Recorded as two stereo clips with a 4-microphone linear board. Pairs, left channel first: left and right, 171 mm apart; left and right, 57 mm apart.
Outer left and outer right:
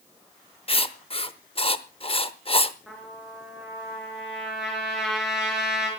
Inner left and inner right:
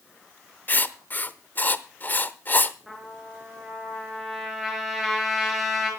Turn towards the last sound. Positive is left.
turn(degrees=0)  # may be behind; listen again after turning